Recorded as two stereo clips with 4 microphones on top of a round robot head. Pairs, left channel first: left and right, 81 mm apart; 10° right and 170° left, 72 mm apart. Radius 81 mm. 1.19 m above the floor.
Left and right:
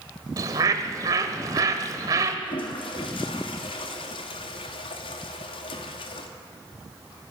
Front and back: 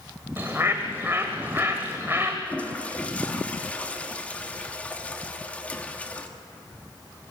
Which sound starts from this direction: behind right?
A bird, at 0.4 s.